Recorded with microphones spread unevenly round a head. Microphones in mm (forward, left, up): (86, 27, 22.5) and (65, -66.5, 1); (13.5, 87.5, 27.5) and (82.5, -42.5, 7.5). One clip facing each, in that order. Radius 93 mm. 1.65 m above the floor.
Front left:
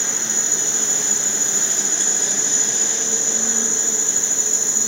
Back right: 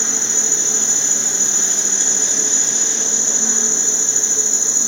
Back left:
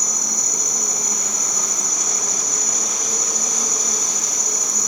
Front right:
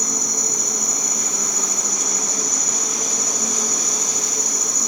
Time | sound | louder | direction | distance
0.0 | an insect | back right 2 dB, front right 4 dB | 40° right | 1.8 m